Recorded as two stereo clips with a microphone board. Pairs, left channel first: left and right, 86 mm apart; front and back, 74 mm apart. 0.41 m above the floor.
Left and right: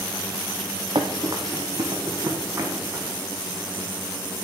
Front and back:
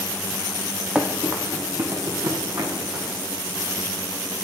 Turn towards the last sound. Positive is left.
turn(degrees=-150)